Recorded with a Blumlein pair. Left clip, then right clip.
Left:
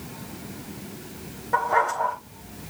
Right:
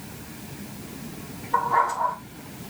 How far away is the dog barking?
About 3.5 m.